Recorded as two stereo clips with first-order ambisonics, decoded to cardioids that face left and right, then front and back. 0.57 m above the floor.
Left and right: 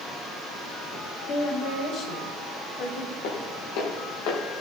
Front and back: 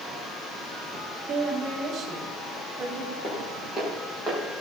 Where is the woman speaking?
115° left, 2 m; by 3.1 s 110° left, 3.5 m.